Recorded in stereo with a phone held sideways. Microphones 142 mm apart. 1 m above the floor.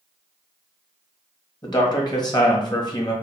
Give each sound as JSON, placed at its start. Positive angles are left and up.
{"t": 1.6, "sound": "a man speaking", "side_deg": 30, "distance_m": 1.3}